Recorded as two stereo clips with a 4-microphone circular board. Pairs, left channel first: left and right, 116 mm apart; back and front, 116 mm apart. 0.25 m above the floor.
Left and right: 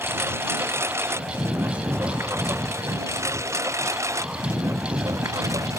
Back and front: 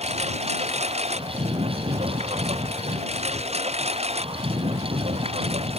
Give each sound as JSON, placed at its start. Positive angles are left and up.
{"t": 0.0, "sound": "a lawn mower", "azimuth_deg": -20}